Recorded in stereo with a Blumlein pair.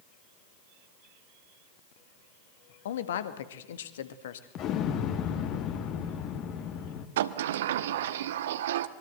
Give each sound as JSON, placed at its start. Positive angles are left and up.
{"t": 2.9, "sound": "a man speaking", "azimuth_deg": 60, "distance_m": 1.9}
{"t": 4.5, "sound": "an explosion", "azimuth_deg": 35, "distance_m": 2.0}
{"t": 7.2, "sound": "a sliding door", "azimuth_deg": -60, "distance_m": 1.1}